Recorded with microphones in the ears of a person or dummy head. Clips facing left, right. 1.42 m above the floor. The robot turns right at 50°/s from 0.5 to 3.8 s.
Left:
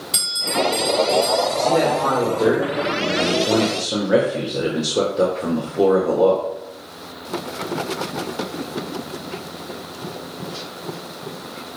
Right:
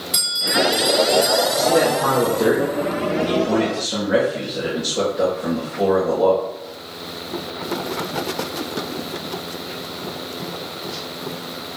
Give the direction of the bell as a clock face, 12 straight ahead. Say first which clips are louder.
Right 1 dB; 6 o'clock.